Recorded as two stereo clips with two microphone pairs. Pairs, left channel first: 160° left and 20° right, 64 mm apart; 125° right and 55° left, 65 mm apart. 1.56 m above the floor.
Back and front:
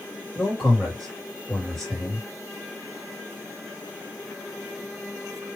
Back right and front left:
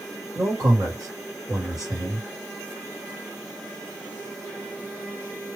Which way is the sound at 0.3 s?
80° left.